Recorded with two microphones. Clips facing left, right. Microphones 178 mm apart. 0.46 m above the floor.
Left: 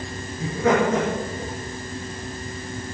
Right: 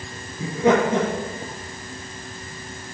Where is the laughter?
25° right (ahead or behind), 7.5 m.